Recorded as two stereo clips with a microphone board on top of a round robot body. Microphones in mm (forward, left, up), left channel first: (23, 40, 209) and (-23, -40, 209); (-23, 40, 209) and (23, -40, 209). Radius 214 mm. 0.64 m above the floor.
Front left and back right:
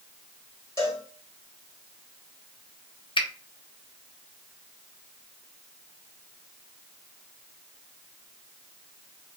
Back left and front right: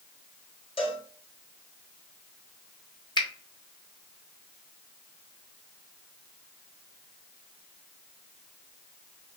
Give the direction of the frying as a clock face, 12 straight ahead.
I don't hear frying.